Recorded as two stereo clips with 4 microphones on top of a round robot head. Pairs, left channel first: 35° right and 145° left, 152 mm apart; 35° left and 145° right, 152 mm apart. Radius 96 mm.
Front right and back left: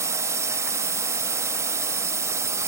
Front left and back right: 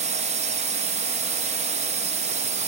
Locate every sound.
0.0 s a drone: 150° right